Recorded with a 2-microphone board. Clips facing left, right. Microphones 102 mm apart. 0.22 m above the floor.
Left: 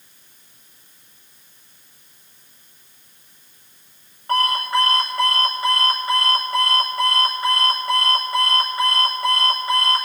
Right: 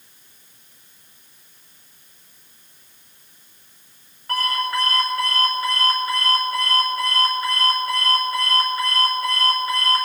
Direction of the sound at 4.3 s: 25° left (ahead or behind).